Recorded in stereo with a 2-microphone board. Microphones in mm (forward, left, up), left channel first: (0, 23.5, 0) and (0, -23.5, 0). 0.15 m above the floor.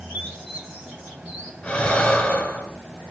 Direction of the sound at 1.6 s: 20° left (ahead or behind).